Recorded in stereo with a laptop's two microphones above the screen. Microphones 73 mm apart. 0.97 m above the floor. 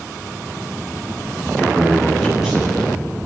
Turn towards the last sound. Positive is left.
turn(degrees=-10)  # may be behind; listen again after turning